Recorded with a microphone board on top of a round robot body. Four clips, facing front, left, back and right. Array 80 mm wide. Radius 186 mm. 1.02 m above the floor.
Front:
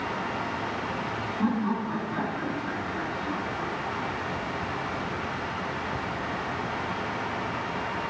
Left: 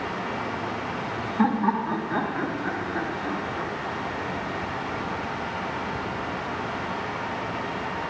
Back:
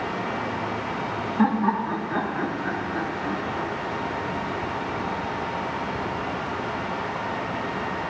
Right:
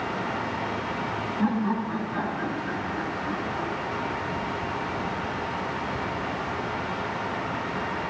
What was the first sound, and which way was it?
Laughter, 135° left.